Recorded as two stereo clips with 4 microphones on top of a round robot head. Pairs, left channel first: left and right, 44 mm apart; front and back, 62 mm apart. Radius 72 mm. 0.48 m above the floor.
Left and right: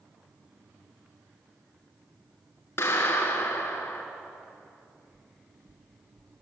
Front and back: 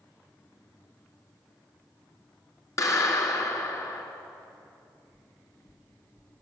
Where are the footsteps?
55° right, 2 m; by 6.3 s 50° right, 3 m.